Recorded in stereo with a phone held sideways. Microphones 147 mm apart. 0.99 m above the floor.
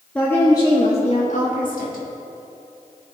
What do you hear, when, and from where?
0.1 s a woman speaking: 10° left (ahead or behind), 1.5 m; by 2.0 s 80° left, 2 m